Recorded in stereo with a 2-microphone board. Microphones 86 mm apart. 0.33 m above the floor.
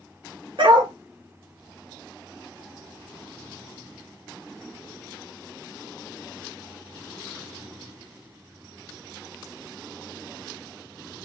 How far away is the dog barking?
About 2.0 m.